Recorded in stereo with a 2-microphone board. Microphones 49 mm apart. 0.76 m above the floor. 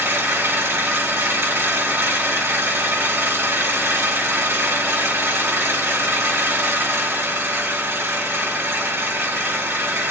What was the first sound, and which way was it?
An engine running, 70° right (ahead or behind).